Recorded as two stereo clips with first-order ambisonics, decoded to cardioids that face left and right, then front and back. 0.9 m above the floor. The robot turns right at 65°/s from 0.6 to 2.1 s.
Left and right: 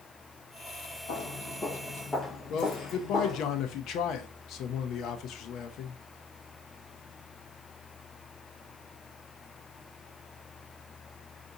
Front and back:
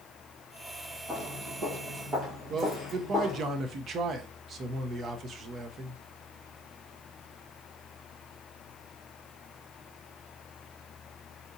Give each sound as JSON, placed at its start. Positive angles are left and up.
{"t": 1.1, "sound": "footsteps", "azimuth_deg": 110, "distance_m": 1.3}
{"t": 2.5, "sound": "a man speaking", "azimuth_deg": 125, "distance_m": 0.5}